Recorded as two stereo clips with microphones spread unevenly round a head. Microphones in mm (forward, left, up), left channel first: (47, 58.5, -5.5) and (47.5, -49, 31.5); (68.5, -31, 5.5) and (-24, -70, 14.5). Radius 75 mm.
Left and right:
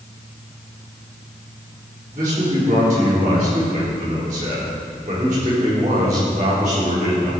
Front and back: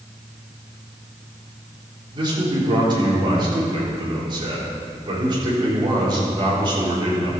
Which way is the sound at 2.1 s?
120° right.